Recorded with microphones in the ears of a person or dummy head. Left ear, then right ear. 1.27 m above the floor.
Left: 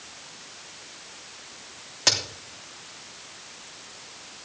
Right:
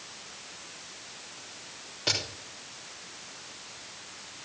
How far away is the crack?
About 3 m.